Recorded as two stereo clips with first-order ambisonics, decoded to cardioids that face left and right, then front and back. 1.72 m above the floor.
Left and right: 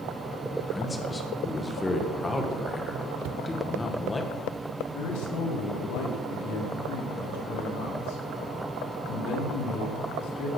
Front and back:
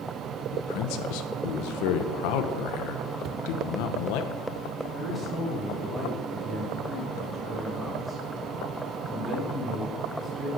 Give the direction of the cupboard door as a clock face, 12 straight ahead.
4 o'clock.